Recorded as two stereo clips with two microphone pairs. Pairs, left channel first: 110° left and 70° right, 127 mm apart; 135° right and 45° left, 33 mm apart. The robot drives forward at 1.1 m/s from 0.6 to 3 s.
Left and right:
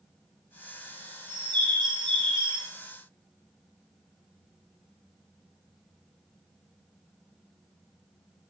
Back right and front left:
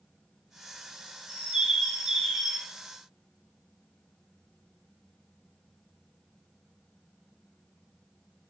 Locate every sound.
1.3 s a bird: 15° right, 3 m; by 2.7 s 40° right, 1.6 m